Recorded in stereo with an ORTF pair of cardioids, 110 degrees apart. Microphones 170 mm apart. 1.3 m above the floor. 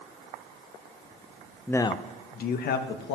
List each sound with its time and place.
1.7 s a man speaking: 5° left, 0.6 m; by 3.1 s 70° left, 1.5 m